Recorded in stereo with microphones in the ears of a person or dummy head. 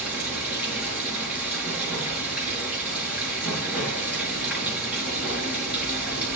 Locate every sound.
0.0 s running water: 10° right (ahead or behind), 7.5 m